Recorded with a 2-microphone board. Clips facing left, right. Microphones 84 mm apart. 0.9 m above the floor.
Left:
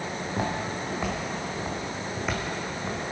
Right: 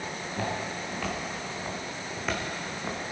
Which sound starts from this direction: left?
Footsteps, at 0.3 s.